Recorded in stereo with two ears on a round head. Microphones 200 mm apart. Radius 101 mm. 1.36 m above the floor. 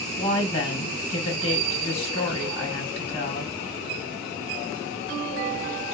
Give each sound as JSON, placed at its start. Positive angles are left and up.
{"t": 0.2, "sound": "a woman speaking", "side_deg": 30, "distance_m": 1.4}